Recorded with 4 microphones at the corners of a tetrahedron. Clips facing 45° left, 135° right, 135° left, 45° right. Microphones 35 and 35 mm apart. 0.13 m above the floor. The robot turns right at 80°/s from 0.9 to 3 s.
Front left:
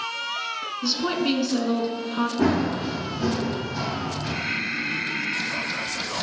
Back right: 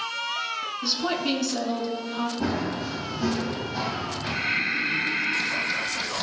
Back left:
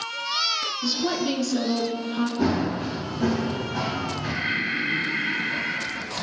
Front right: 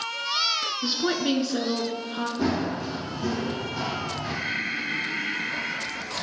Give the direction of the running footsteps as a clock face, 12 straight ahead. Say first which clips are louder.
Front left 5 dB, back left 1 dB; 10 o'clock.